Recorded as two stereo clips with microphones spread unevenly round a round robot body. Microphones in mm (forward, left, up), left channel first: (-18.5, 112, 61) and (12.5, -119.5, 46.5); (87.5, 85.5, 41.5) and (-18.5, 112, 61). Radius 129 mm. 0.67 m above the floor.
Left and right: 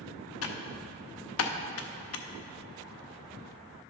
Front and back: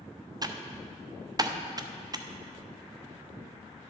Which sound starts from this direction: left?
Typing on a keyboard, at 0.4 s.